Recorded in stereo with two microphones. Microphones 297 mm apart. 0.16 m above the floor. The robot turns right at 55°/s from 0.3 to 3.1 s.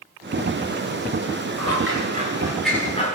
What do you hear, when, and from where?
1.6 s scissors: 55° right (ahead or behind), 8.5 m; by 3.1 s 25° left (ahead or behind), 8.5 m